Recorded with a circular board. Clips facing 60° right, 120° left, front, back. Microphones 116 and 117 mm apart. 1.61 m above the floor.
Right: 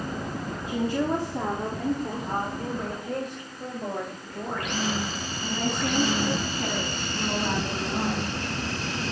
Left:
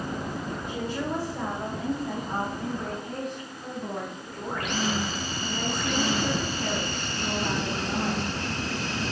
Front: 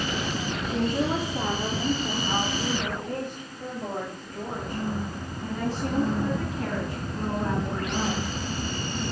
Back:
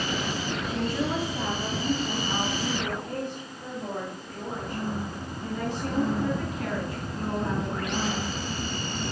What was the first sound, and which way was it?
A woman speaking, 65° right.